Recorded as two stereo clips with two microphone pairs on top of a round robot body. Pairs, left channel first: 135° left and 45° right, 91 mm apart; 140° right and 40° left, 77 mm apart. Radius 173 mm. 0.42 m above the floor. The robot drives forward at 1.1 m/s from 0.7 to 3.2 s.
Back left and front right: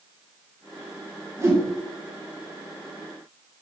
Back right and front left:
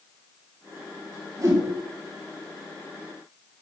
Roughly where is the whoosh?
Ahead.